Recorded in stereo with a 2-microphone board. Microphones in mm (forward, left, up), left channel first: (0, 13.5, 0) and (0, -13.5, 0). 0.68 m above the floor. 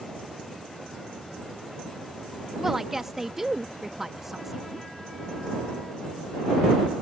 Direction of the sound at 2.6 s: 10° right (ahead or behind).